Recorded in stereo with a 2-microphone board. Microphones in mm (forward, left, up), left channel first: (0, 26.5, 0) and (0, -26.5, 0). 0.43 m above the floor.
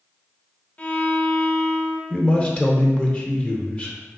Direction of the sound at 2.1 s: 20° left (ahead or behind).